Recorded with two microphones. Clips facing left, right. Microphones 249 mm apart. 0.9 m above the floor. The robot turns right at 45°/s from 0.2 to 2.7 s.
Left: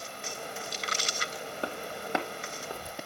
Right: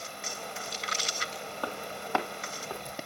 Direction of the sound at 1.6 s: 25° left (ahead or behind).